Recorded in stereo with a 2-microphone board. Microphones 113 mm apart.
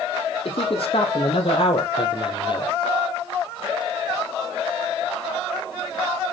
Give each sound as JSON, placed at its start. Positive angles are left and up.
{"t": 0.5, "sound": "a man speaking", "side_deg": 55, "distance_m": 4.0}